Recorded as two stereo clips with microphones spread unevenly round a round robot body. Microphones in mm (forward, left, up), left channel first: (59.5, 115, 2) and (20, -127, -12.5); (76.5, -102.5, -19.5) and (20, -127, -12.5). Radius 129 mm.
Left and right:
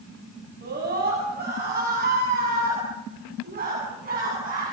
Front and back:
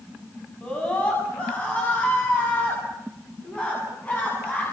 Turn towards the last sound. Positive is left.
turn(degrees=-45)